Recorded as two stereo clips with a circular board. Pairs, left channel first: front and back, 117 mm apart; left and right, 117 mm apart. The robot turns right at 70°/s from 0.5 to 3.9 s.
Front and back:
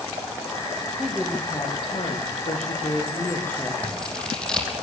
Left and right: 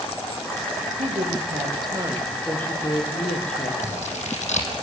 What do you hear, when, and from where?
1.0 s a woman speaking: 100° right, 5.5 m; by 3.7 s 90° left, 5.5 m
3.8 s scissors: 80° left, 4.5 m; by 4.7 s 85° left, 4.5 m